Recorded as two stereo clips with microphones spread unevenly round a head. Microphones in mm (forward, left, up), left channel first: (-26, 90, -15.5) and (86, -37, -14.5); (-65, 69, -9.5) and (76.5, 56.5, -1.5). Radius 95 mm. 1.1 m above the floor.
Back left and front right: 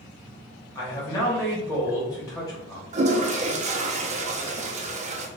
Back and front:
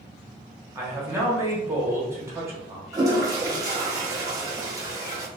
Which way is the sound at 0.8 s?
65° left.